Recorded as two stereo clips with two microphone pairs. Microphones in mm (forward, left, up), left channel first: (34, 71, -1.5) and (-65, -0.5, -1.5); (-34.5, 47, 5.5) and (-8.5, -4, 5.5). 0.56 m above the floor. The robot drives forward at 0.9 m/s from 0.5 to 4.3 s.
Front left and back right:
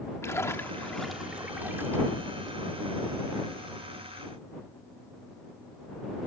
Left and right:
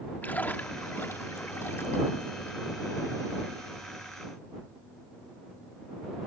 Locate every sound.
0.2 s a splash: 90° left; by 2.7 s 160° left